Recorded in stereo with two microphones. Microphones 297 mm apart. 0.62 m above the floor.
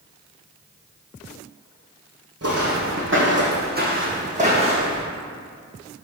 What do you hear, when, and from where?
2.4 s footsteps: 55° right (ahead or behind), 1.7 m; by 5.0 s 15° right (ahead or behind), 2 m